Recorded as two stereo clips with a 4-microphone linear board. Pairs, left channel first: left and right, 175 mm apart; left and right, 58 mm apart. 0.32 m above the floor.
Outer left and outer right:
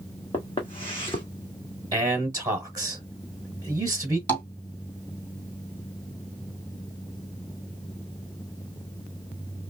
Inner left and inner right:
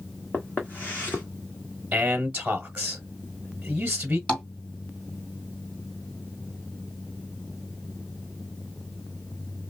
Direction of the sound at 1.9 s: 20° right (ahead or behind).